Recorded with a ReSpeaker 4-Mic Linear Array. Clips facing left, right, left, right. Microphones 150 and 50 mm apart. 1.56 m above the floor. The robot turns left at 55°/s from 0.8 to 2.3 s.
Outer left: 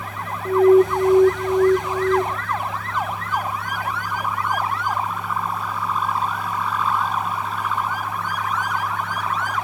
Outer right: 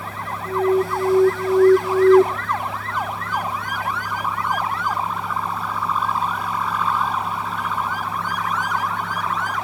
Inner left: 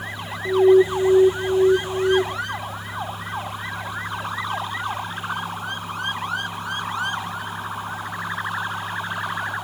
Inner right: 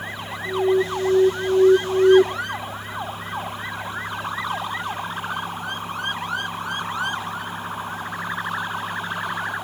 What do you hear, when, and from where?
0.5 s an alarm: 35° left, 0.8 m; by 2.2 s 45° right, 0.8 m